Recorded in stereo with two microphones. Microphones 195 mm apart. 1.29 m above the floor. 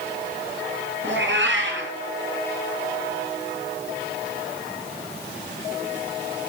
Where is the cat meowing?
70° right (ahead or behind), 7 m.